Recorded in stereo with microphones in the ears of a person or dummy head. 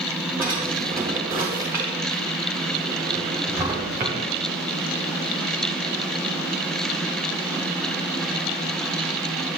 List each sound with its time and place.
0.4 s a drawer: 10° right (ahead or behind), 0.8 m